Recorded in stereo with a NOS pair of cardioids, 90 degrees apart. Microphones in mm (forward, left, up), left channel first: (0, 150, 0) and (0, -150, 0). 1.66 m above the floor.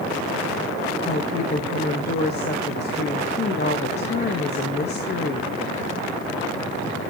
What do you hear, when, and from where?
1.1 s a woman speaking: 35° left, 1.0 m